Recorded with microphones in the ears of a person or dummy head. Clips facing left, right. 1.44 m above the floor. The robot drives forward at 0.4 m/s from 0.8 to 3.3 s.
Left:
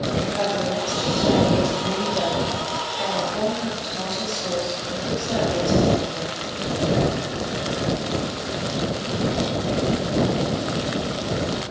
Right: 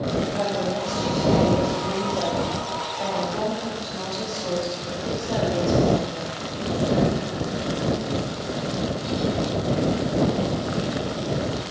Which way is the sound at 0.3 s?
5° right (ahead or behind).